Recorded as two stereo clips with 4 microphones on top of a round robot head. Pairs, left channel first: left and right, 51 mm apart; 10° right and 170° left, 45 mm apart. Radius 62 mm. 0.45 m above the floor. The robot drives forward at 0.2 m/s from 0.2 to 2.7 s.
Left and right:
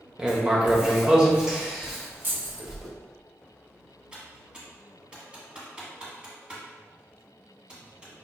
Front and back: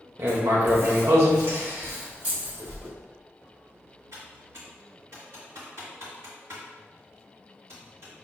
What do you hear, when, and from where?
0.2 s writing: 160° right, 0.9 m; by 2.9 s 165° right, 1.4 m
2.2 s keys jangling: 130° right, 1.4 m; by 2.7 s 135° right, 1.5 m
4.1 s typing on a keyboard: 160° right, 1.6 m